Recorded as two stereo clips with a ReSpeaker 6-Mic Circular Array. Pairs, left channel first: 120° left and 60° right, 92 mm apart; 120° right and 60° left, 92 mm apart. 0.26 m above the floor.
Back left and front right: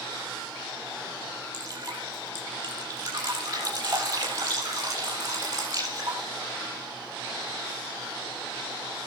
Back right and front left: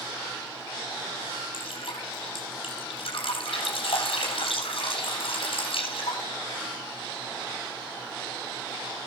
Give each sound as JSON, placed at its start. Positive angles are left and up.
{"t": 1.5, "sound": "dripping", "azimuth_deg": -100, "distance_m": 7.5}